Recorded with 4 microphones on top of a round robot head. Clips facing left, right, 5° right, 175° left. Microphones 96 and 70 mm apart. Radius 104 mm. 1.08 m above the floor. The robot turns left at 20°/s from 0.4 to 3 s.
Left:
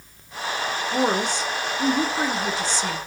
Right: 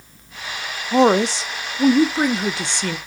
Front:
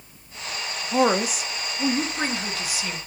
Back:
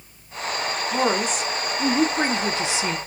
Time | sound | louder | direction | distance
0.9 | a woman speaking | right 9 dB, front 3 dB | 80° right | 0.5 m